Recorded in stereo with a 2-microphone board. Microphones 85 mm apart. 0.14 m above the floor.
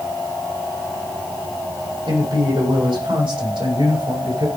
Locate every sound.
2.1 s a man speaking: 75° right (ahead or behind), 7 m; by 4.5 s 80° right, 8 m